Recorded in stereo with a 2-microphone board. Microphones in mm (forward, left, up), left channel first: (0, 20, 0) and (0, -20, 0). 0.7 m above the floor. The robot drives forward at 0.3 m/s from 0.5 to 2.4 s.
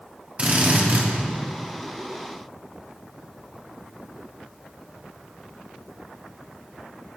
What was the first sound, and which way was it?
A drill, 30° right (ahead or behind).